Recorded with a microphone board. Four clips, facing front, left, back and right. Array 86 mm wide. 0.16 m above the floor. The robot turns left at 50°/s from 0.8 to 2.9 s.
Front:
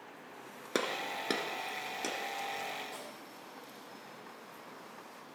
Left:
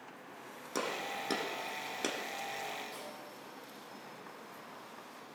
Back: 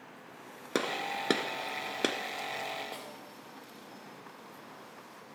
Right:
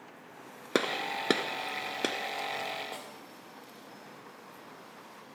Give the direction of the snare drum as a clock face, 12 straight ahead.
4 o'clock.